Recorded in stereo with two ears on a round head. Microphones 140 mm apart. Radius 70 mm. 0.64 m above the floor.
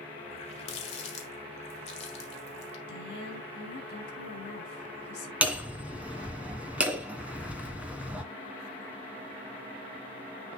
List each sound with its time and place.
0.3 s a running tap: 40° left (ahead or behind), 1.8 m
2.9 s a woman speaking: 80° left, 5.5 m
5.4 s hammering: 10° right (ahead or behind), 1.6 m